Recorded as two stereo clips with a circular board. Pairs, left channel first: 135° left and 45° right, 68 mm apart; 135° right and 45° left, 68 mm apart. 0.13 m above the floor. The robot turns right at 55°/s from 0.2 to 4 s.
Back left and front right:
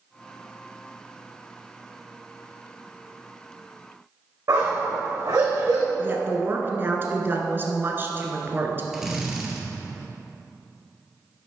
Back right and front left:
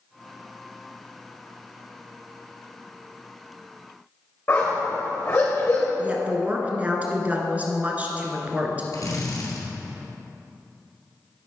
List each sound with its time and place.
4.5 s a dog barking: 80° right, 3.5 m
6.0 s a woman speaking: 10° right, 1.3 m
8.9 s a drill: 130° right, 1.9 m